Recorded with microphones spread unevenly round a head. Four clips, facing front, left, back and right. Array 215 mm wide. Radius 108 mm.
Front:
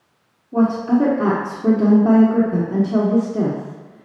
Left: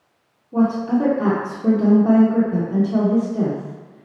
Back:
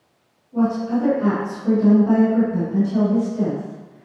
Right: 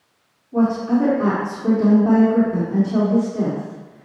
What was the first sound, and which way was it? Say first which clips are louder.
A woman speaking: even, front 4 dB; 15° left.